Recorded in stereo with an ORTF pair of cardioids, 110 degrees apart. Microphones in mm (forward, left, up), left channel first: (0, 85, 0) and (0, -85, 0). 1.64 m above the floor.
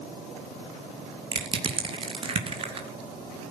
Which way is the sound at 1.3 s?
30° right.